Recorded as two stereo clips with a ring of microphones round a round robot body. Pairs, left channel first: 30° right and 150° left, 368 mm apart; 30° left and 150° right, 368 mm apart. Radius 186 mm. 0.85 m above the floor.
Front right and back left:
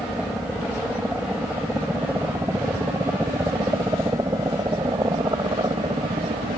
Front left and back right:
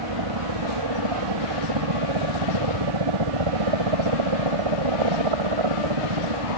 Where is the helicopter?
120° right; by 6.6 s 130° right.